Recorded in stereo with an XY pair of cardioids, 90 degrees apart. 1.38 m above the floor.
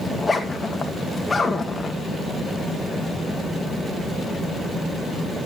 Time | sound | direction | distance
0.1 | a zipper | 25° left | 1.9 m